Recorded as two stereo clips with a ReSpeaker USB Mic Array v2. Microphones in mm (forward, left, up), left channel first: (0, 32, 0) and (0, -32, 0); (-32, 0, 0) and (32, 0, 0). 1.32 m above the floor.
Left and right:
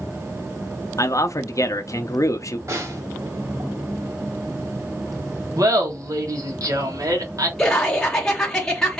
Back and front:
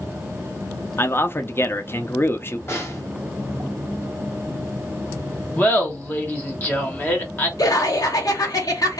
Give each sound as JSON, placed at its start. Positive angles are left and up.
{"t": 1.0, "sound": "a man speaking", "azimuth_deg": 125, "distance_m": 0.7}
{"t": 2.7, "sound": "a snare drum", "azimuth_deg": -130, "distance_m": 1.8}
{"t": 5.6, "sound": "laughter", "azimuth_deg": -120, "distance_m": 1.4}
{"t": 7.6, "sound": "laughter", "azimuth_deg": 170, "distance_m": 1.0}